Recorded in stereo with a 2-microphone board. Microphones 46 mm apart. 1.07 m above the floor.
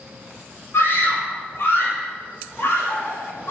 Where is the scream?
55° left (ahead or behind), 5 m.